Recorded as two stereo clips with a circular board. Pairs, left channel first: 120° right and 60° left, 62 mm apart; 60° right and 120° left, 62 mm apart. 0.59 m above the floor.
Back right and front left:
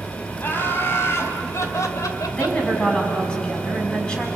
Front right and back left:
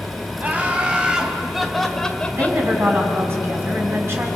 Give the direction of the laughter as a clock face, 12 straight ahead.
6 o'clock.